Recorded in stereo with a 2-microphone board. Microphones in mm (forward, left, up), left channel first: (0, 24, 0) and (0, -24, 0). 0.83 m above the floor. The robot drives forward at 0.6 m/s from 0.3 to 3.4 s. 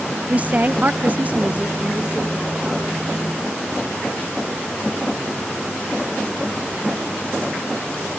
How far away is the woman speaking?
About 0.6 m.